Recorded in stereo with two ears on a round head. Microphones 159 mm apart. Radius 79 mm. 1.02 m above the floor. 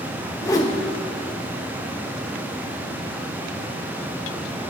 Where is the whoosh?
20° left (ahead or behind), 1.2 m.